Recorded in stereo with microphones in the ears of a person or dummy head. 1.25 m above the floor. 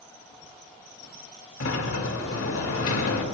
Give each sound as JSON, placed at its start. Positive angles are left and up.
{"t": 1.6, "sound": "a sliding door", "side_deg": 85, "distance_m": 1.5}